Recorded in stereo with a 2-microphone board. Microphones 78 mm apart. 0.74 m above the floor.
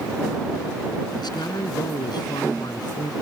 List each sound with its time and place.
1.2 s a man speaking: 65° left (ahead or behind)